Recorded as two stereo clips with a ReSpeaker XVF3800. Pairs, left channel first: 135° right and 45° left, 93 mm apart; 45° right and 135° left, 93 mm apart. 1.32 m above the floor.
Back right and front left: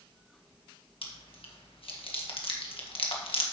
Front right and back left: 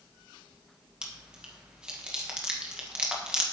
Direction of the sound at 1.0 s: 145° right.